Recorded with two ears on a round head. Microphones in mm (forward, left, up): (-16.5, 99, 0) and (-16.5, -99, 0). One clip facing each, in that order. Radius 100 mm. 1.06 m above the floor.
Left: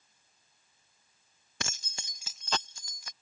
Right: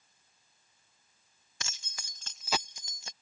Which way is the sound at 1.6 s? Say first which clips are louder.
Left 8 dB; 50° left (ahead or behind).